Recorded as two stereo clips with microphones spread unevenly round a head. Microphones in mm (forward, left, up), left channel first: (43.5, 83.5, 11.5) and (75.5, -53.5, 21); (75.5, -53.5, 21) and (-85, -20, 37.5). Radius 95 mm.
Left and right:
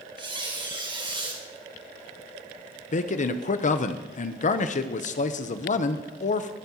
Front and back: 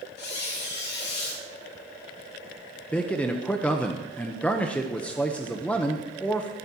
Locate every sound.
0.2 s a squeak: 30° right, 4.5 m
2.9 s a man speaking: 75° left, 0.9 m